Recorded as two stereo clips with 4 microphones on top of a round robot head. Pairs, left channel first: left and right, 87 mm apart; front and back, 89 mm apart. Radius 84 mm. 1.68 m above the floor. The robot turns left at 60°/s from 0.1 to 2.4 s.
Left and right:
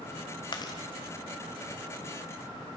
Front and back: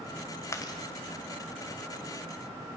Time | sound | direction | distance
0.5 | chewing | 55° left | 1.8 m